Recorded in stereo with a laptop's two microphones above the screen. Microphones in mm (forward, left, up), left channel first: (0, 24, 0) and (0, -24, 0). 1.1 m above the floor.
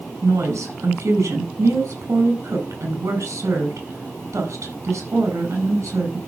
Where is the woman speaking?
90° right, 5 m.